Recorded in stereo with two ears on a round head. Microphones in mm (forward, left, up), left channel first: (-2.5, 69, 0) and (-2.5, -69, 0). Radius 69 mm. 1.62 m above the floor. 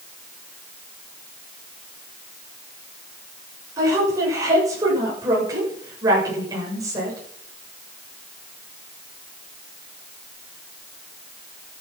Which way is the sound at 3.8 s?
25° right (ahead or behind).